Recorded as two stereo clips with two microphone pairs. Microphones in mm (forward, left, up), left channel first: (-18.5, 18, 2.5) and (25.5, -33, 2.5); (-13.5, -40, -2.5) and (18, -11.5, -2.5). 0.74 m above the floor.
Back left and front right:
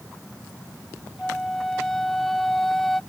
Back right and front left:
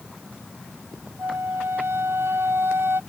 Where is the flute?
45° left.